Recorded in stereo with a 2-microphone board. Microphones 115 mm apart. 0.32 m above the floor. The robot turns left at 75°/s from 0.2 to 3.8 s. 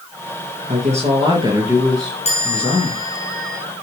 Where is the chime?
120° left, 3.5 m; by 3.6 s 20° left, 3.5 m.